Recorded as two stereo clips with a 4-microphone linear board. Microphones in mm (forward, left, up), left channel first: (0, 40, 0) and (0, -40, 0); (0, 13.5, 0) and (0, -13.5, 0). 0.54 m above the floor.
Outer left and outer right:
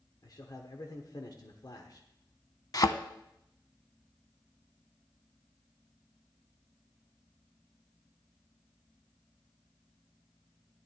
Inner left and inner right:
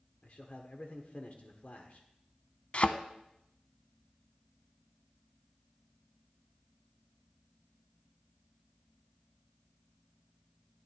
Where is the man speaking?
55° left (ahead or behind), 1.1 m.